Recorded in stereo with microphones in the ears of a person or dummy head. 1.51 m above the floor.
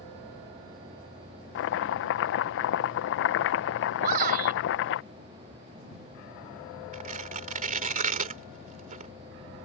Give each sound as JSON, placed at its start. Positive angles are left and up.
{"t": 1.6, "sound": "chopping", "side_deg": 70}
{"t": 4.0, "sound": "a shout", "side_deg": -50}
{"t": 6.9, "sound": "tearing paper", "side_deg": -45}